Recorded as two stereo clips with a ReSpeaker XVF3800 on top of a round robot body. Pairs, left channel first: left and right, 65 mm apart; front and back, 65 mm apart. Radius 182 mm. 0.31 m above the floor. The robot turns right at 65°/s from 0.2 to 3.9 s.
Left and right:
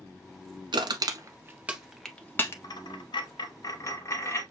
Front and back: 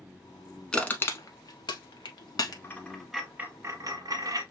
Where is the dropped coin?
60° left, 0.7 m; by 4.4 s 145° left, 0.7 m.